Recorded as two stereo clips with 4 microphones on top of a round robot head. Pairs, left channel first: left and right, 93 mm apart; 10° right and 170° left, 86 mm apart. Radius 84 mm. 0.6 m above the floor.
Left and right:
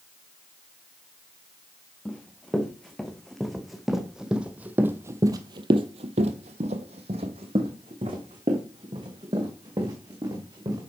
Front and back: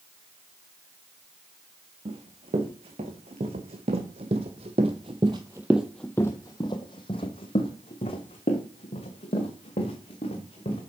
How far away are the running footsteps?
About 3 m.